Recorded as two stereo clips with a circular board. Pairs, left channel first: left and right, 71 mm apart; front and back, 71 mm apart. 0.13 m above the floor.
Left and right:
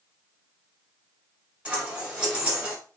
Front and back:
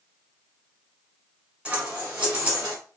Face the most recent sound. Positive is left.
turn(degrees=-135)